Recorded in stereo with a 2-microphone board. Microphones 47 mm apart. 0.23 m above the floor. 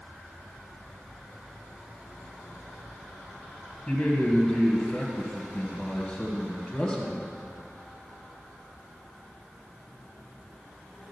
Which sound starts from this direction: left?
A man speaking, at 3.9 s.